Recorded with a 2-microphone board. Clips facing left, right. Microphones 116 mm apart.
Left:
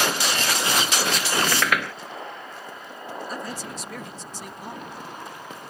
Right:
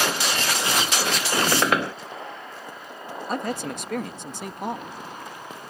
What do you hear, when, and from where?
1.3 s a squeak: 30° right (ahead or behind)
3.3 s a man speaking: 60° right (ahead or behind)